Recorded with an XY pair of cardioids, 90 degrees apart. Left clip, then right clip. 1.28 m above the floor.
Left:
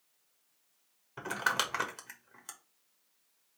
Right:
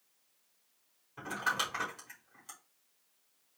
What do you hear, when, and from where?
1.2 s crumpling: 70° left, 1.4 m